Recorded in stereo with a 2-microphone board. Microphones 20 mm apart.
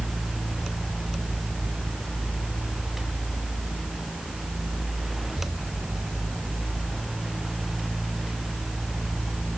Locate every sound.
Only background noise.